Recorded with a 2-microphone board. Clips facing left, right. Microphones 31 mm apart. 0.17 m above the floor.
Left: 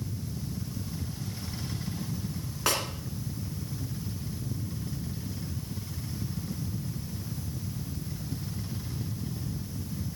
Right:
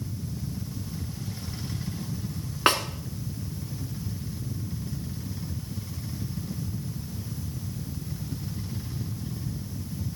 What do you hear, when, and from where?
2.7 s a snare drum: 40° right (ahead or behind), 1.3 m